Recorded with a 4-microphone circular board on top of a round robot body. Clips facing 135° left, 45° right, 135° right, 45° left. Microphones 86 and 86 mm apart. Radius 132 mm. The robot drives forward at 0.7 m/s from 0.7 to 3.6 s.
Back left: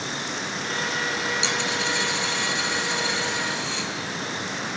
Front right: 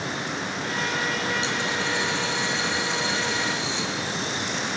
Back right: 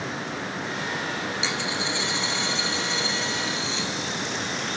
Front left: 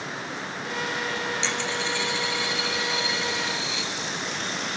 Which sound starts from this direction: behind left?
A dropped coin, at 1.4 s.